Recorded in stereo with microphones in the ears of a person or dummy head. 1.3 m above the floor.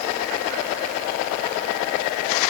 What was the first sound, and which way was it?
Only background noise.